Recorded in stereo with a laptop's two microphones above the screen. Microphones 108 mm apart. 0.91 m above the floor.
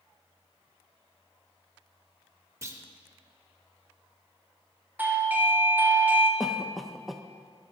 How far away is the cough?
About 0.5 m.